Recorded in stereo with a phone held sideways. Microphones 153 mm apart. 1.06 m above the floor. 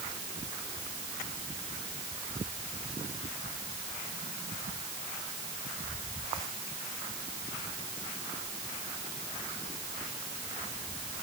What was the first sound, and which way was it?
Only background noise.